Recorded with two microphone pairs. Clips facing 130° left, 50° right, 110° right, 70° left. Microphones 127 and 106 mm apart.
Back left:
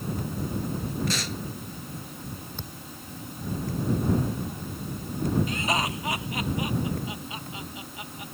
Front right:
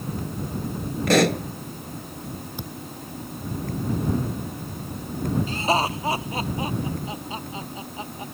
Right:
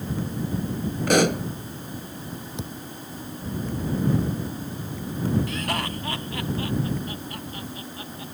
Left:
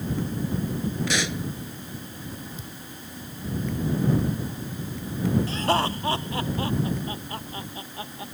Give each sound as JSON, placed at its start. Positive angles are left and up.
{"t": 1.1, "sound": "a pop", "azimuth_deg": -75}
{"t": 2.6, "sound": "a thud", "azimuth_deg": -125}
{"t": 5.5, "sound": "laughter", "azimuth_deg": 10}